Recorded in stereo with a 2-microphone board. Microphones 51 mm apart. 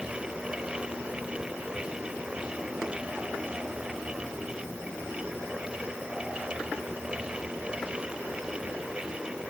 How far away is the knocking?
I don't hear knocking.